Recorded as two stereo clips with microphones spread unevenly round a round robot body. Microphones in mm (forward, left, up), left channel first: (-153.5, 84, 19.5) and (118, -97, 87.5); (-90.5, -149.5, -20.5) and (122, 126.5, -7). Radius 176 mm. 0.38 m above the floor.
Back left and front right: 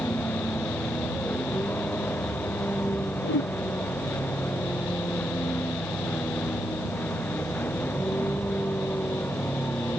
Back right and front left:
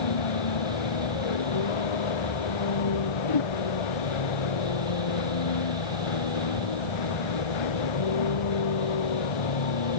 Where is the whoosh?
155° right.